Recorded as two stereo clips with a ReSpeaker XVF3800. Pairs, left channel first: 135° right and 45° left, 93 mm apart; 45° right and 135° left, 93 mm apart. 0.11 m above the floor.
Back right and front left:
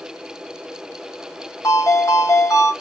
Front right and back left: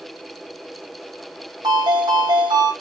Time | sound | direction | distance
1.6 | a ringtone | 170° left | 3 m